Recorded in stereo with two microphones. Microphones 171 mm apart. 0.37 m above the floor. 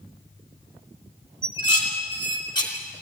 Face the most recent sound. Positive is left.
turn(degrees=25)  # may be behind; listen again after turning